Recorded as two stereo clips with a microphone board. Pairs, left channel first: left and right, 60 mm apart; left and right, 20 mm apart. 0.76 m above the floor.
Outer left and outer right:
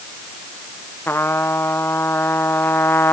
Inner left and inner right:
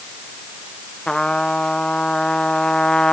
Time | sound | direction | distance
1.1 | a trumpet | 40° left (ahead or behind) | ?